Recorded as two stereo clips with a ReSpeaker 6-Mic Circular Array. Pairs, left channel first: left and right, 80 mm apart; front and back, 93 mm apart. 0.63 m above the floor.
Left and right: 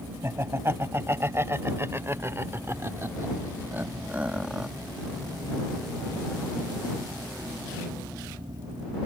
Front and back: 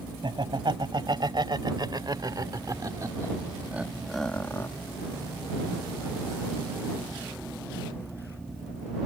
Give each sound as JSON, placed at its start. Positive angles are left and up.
{"t": 0.2, "sound": "laughter", "azimuth_deg": -150}